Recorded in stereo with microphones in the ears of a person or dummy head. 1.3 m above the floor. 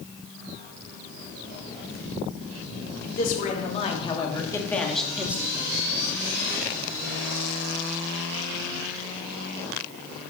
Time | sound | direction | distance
3.0 | a man speaking | 50° left (ahead or behind) | 3.5 m